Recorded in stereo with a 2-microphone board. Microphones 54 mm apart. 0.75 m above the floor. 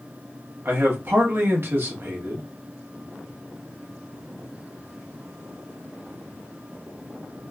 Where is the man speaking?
50° right (ahead or behind), 1.1 m.